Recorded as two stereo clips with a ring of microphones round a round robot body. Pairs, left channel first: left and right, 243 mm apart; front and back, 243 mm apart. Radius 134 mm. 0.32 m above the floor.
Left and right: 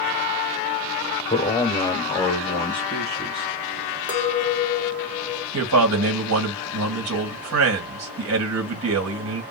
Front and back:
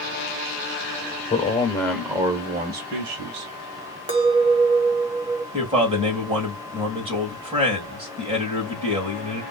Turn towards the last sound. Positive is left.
turn(degrees=-110)